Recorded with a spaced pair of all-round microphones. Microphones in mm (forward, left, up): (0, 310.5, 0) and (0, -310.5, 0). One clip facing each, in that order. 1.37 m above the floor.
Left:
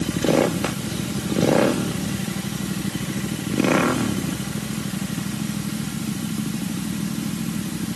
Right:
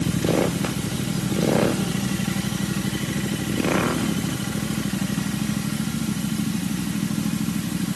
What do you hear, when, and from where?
Only background noise.